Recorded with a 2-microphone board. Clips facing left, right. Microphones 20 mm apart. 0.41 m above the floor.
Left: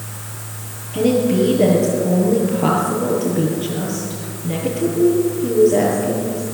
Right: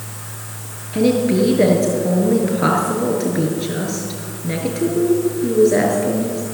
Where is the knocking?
No knocking in this recording.